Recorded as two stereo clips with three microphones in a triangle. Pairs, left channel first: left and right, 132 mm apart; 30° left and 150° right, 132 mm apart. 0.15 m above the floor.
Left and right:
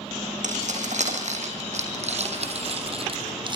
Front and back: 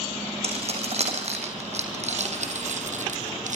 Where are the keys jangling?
110° right, 5.5 m; by 3.6 s 140° right, 2.5 m.